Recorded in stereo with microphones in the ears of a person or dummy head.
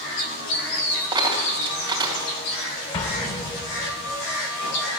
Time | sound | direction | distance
1.1 | a dropped coin | 25° right (ahead or behind) | 2.5 m
2.9 | an explosion | 35° left (ahead or behind) | 1.0 m